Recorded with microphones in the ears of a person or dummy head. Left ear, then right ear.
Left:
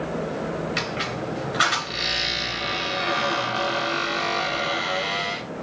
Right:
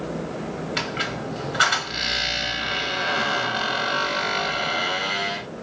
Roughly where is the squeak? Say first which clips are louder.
Right 4 dB; centre.